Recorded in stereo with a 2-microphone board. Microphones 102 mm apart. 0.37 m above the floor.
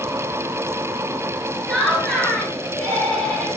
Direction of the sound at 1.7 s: 15° right (ahead or behind).